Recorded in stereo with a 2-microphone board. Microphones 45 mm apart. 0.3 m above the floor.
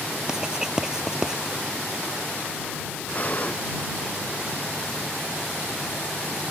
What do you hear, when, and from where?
0.3 s writing: 15° right (ahead or behind)
3.1 s breathing: 35° left (ahead or behind)